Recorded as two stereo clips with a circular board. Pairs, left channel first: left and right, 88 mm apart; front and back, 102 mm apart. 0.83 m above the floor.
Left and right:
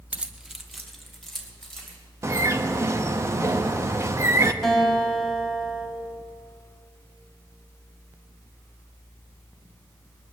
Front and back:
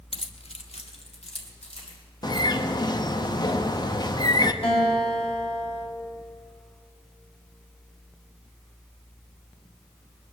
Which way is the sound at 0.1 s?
20° right.